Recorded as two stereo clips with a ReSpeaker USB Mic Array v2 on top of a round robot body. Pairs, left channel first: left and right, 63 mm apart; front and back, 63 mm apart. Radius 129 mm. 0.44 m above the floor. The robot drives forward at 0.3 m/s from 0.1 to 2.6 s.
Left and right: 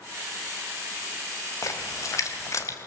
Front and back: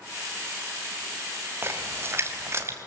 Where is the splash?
125° left, 2.5 m; by 2.8 s 130° left, 2.5 m.